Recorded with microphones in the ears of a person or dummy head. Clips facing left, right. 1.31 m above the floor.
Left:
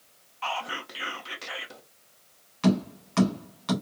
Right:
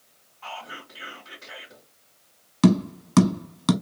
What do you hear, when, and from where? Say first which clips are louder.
0.4 s whispering: left 6 dB; 80° left, 1.0 m
2.6 s tapping: right 5 dB; 65° right (ahead or behind), 1.0 m